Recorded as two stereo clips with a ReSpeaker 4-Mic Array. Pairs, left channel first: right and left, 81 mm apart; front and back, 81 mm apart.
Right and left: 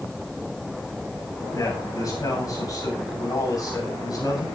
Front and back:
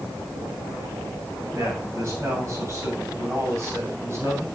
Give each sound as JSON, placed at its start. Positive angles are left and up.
{"t": 1.5, "sound": "a man speaking", "azimuth_deg": -120, "distance_m": 7.0}